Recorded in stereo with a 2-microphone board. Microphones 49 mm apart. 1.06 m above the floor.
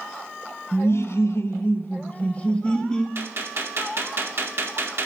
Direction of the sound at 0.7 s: 55° left (ahead or behind).